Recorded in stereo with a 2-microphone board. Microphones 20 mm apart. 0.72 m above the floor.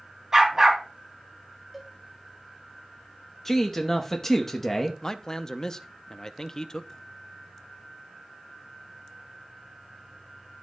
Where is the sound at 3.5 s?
20° left (ahead or behind), 0.8 m.